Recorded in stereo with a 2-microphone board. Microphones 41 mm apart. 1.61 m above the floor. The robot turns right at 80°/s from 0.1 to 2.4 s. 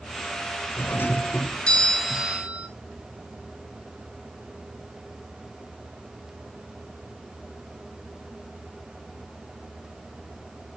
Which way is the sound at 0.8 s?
80° left.